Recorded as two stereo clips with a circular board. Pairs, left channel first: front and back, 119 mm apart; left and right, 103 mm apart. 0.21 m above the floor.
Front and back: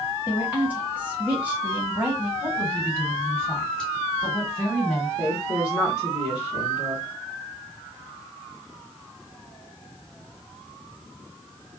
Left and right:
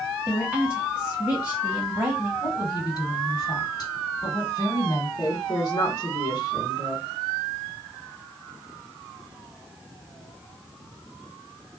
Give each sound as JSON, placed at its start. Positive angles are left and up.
{"t": 0.3, "sound": "a woman speaking", "azimuth_deg": -135, "distance_m": 1.0}
{"t": 2.4, "sound": "a woman speaking", "azimuth_deg": 80, "distance_m": 1.5}
{"t": 5.2, "sound": "a woman speaking", "azimuth_deg": 110, "distance_m": 1.2}